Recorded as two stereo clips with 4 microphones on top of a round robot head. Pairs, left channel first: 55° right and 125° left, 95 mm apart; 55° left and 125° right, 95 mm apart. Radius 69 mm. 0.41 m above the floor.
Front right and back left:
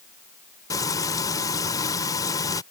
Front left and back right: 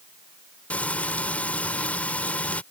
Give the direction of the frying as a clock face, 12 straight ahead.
1 o'clock.